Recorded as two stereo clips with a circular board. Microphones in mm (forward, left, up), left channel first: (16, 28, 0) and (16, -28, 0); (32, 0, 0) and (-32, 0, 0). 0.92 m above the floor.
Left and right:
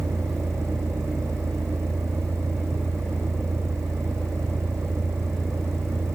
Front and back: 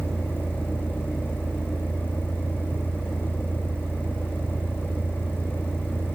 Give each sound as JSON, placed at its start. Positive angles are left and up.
{"t": 0.0, "sound": "a vehicle", "azimuth_deg": -60}